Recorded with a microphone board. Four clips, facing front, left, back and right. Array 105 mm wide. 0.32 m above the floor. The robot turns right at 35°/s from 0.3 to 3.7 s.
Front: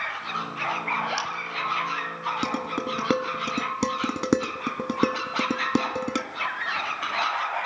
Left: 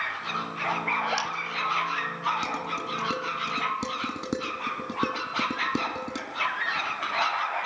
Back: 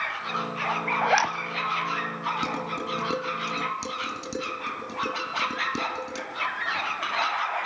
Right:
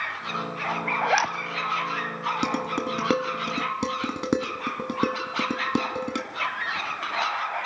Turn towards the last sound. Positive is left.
turn(degrees=-25)